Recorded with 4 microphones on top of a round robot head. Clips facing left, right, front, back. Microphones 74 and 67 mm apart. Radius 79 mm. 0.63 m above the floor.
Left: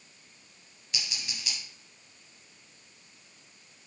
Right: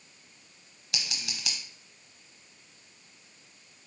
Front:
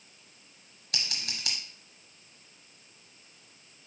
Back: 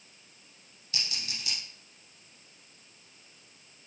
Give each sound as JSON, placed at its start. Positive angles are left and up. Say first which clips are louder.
{"t": 0.9, "sound": "scissors", "louder": "right 1 dB, front 1 dB", "azimuth_deg": -50, "distance_m": 0.8}